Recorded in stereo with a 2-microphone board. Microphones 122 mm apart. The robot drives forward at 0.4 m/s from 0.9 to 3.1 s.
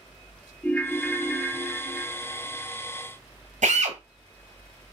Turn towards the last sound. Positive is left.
turn(degrees=-75)  # may be behind; listen again after turning